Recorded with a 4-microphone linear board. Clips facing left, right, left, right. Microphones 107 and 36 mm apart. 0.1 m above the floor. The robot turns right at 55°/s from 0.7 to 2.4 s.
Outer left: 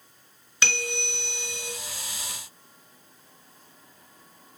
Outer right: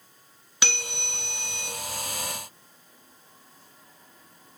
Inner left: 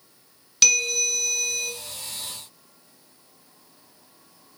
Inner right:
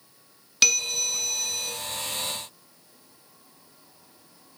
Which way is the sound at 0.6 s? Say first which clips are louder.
Outer left 4 dB, inner left 2 dB; 10° right (ahead or behind).